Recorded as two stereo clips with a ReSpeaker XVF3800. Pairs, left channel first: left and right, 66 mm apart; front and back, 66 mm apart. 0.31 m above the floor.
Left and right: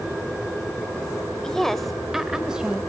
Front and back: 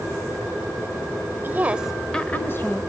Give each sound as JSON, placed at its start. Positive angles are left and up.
{"t": 1.4, "sound": "a woman speaking", "azimuth_deg": 160, "distance_m": 1.3}